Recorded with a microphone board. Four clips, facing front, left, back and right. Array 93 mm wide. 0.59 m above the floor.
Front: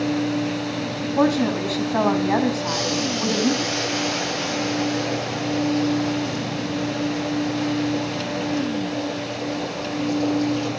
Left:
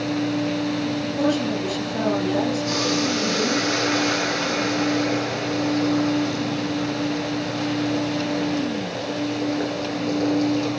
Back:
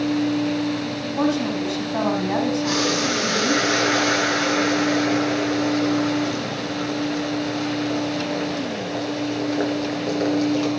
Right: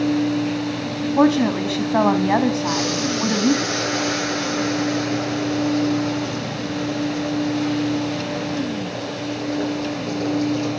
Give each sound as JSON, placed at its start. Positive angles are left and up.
{"t": 1.2, "sound": "a woman speaking", "azimuth_deg": -75, "distance_m": 4.0}
{"t": 2.6, "sound": "boiling", "azimuth_deg": 180, "distance_m": 10.0}